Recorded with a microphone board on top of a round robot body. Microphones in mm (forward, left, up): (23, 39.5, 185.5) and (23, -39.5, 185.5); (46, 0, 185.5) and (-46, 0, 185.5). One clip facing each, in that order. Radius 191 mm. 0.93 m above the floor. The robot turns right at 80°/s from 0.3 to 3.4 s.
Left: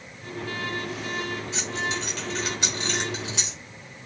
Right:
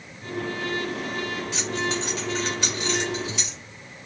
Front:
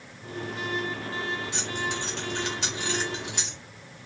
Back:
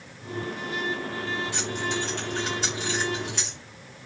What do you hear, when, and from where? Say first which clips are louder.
1.5 s keys jangling: right 3 dB, back 2 dB; 70° right, 1.2 m; by 3.6 s 80° left, 1.2 m